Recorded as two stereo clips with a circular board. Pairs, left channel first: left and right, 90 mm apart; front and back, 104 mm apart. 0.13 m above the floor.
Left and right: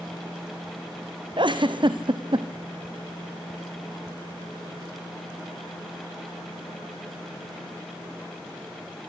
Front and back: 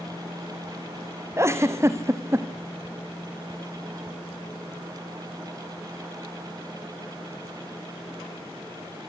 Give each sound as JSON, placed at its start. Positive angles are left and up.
{"t": 1.4, "sound": "a giggle", "azimuth_deg": -115, "distance_m": 1.9}